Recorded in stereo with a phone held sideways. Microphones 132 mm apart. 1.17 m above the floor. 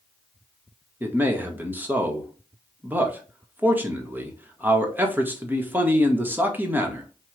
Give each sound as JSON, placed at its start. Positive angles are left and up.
{"t": 1.0, "sound": "a man speaking", "side_deg": -15, "distance_m": 1.2}